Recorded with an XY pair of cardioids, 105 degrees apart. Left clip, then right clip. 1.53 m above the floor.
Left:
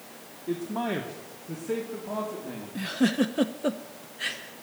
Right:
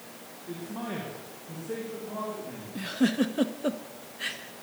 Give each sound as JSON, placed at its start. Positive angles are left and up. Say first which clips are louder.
{"t": 0.5, "sound": "a man speaking", "louder": "left 7 dB", "azimuth_deg": 60, "distance_m": 1.7}
{"t": 2.8, "sound": "a giggle", "louder": "left 1 dB", "azimuth_deg": 15, "distance_m": 0.7}